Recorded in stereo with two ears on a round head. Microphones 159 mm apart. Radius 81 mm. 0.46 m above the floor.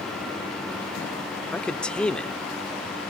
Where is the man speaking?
5° left (ahead or behind), 0.8 m.